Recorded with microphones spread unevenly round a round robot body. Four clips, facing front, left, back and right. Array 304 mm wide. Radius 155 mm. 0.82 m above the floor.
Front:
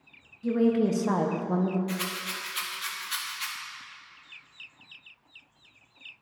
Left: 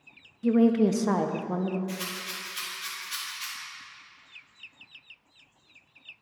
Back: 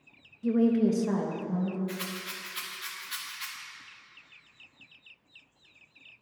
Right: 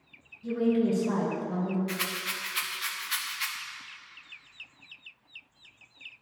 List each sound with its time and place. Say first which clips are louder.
0.4 s a woman speaking: left 4 dB, even; 90° left, 0.7 m; by 1.8 s 20° left, 0.9 m
1.9 s a rattle: right 2 dB, front 4 dB; 100° right, 1.0 m